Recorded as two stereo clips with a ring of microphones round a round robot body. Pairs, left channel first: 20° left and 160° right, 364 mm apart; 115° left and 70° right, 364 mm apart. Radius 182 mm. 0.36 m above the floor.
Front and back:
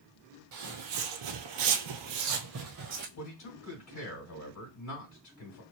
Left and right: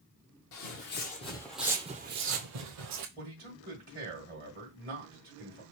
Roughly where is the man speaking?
Ahead.